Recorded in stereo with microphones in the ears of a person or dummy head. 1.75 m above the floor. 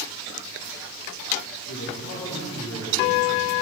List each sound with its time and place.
1.7 s a man speaking: 55° left (ahead or behind), 4 m; by 3.5 s 15° left (ahead or behind), 4 m